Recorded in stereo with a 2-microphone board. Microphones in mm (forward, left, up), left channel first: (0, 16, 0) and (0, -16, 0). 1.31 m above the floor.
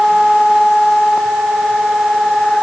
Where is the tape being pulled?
I don't hear tape being pulled.